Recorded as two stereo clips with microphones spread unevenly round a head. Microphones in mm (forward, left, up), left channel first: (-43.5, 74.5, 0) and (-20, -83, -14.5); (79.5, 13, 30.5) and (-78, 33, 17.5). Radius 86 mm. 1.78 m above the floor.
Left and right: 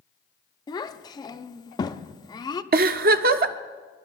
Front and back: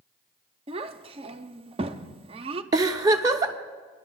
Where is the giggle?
115° right, 0.6 m.